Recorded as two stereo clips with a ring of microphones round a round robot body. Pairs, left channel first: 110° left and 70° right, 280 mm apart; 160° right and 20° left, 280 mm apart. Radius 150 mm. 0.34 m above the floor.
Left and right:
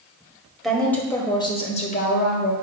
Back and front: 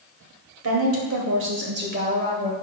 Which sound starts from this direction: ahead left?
A woman speaking, at 0.6 s.